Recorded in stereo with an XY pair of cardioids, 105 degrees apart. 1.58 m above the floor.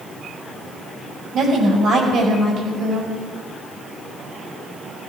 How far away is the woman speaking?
About 6.5 m.